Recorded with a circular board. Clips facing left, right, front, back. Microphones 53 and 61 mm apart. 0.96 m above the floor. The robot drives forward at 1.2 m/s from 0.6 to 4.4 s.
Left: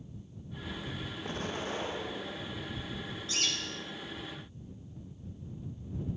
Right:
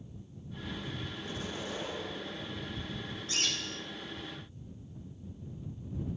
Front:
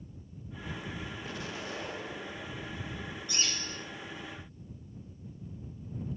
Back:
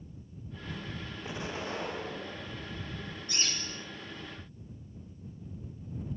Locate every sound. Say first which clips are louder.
1.2 s an explosion: left 4 dB, back 5 dB; 110° left, 1.2 m; by 2.8 s 155° left, 2.5 m
3.3 s a bird: even, even; 135° right, 6 m; by 3.8 s 140° right, 6.5 m